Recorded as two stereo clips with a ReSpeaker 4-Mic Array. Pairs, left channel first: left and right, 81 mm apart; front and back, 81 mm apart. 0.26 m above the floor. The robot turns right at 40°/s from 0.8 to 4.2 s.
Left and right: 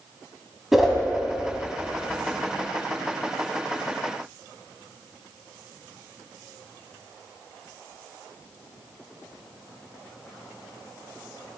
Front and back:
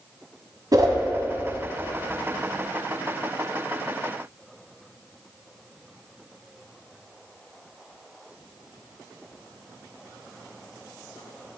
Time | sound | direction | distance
0.7 | a whoosh | 175° right | 1.5 m